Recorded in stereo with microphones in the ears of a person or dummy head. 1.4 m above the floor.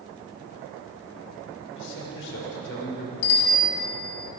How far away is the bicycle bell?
About 7 m.